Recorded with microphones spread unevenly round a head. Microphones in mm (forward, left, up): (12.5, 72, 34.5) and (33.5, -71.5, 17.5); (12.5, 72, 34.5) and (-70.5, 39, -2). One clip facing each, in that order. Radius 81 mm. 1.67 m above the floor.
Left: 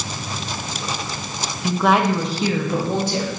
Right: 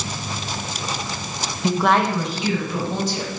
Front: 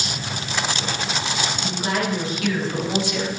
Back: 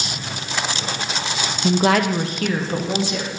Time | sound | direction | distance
1.6 | a woman speaking | 150° right | 0.6 m